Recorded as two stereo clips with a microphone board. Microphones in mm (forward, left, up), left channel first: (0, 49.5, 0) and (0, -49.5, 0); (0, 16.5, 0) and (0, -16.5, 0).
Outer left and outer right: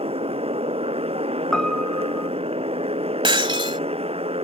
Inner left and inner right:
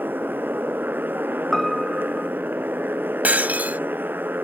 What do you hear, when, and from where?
0.0 s a motorcycle: 90° right
1.5 s a piano: 5° left (ahead or behind)
3.2 s breaking glass: 60° right (ahead or behind)